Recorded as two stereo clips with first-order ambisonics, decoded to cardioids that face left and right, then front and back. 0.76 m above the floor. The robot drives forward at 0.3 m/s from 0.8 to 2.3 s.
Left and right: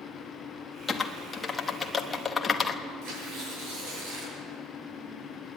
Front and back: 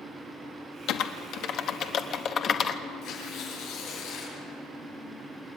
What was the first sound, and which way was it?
Typing on a keyboard, 15° left.